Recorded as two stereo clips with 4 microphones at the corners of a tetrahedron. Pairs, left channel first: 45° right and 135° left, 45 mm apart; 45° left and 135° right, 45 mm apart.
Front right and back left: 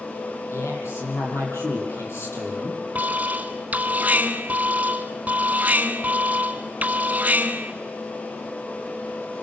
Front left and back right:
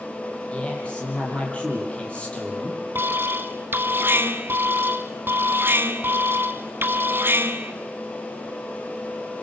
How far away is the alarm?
About 1.7 m.